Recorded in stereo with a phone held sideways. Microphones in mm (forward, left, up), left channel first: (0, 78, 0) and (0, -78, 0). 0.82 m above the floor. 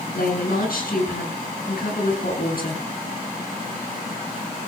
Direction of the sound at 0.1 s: 75° left (ahead or behind).